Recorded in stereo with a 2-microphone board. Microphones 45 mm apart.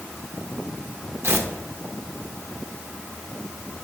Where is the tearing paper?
60° right (ahead or behind), 0.9 m.